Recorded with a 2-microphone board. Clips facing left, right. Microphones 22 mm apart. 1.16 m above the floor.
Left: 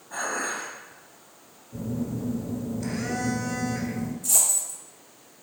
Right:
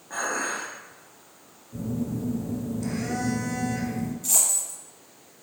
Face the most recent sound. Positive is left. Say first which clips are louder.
# left 1 dB
turn(degrees=-45)  # may be behind; listen again after turning